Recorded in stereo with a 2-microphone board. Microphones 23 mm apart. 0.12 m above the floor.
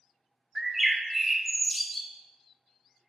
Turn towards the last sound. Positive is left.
turn(degrees=-10)  # may be behind; listen again after turning